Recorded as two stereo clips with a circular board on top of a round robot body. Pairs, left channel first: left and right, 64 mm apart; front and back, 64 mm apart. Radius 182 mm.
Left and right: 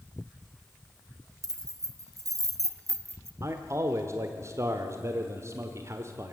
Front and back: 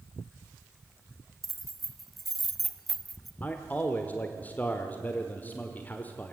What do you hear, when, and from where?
1.4 s keys jangling: 95° right, 1.9 m
3.4 s a man speaking: 60° right, 1.5 m